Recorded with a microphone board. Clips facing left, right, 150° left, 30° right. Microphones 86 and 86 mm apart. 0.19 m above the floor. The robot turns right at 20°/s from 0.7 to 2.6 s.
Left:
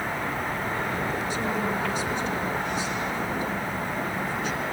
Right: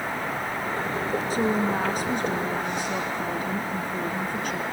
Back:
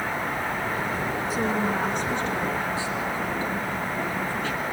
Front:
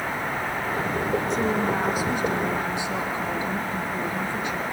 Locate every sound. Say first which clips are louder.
1.3 s a woman speaking: right 3 dB, front 1 dB; 125° right, 2.5 m; by 4.6 s 100° right, 2.5 m